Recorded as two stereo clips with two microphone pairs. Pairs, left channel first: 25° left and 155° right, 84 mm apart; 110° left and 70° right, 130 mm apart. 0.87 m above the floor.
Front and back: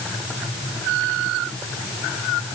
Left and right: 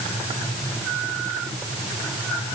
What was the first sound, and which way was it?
Only background noise.